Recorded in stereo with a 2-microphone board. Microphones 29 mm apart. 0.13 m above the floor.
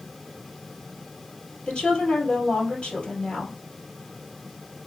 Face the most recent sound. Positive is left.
turn(degrees=40)  # may be behind; listen again after turning